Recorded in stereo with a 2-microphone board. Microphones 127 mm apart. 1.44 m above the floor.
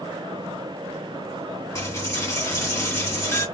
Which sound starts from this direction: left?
A dropped coin, at 1.8 s.